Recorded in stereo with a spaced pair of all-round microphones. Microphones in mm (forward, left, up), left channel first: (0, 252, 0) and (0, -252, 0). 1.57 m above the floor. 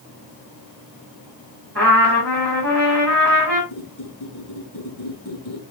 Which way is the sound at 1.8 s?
30° right (ahead or behind).